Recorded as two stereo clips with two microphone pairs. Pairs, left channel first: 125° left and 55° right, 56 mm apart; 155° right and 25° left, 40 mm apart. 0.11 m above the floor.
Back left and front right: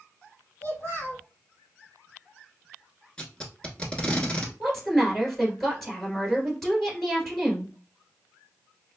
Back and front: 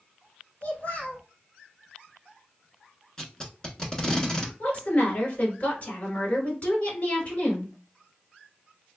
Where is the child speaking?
165° left, 1.7 m.